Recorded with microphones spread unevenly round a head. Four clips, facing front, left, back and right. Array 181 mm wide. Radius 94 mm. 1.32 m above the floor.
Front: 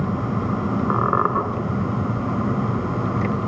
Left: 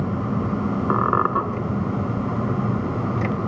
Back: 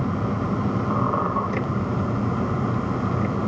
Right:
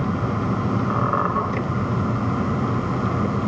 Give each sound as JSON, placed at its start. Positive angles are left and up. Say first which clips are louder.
{"t": 0.9, "sound": "a squeak", "louder": "left 4 dB, front 4 dB", "azimuth_deg": 25, "distance_m": 2.0}